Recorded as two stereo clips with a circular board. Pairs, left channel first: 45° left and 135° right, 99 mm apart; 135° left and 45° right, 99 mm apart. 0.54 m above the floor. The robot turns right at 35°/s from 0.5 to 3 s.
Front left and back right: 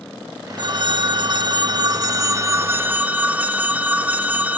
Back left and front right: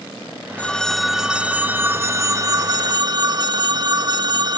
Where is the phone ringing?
150° right; by 4.6 s 65° right.